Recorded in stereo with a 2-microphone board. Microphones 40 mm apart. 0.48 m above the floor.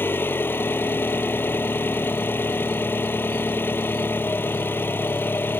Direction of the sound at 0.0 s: 65° left (ahead or behind).